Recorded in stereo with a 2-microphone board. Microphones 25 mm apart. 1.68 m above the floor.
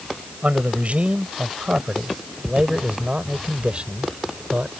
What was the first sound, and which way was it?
A man speaking, 55° right (ahead or behind).